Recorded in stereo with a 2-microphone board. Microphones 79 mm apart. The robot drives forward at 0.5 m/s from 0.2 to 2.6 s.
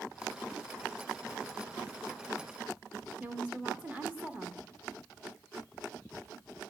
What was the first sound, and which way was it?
A woman speaking, 15° right (ahead or behind).